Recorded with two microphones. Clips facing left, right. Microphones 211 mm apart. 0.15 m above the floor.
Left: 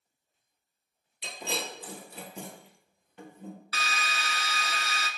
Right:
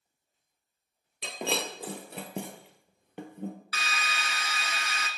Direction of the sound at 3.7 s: 35° left (ahead or behind).